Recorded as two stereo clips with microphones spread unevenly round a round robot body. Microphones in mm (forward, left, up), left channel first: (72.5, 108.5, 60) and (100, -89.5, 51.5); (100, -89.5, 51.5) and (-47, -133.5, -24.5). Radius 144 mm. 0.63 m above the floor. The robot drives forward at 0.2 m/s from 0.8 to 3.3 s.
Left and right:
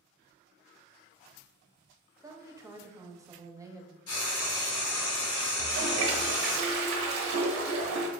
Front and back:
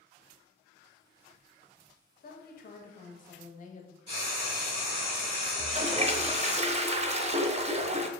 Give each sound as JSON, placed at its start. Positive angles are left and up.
{"t": 2.2, "sound": "a woman speaking", "azimuth_deg": -15, "distance_m": 0.7}
{"t": 4.1, "sound": "frying", "azimuth_deg": 125, "distance_m": 0.6}
{"t": 5.6, "sound": "a toilet flushing", "azimuth_deg": -105, "distance_m": 0.5}